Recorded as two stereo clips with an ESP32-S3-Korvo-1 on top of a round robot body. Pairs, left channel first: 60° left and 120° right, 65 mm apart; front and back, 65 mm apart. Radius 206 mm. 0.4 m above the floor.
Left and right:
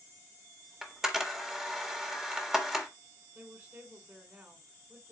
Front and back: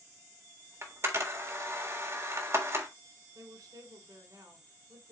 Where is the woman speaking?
Straight behind, 3.5 m.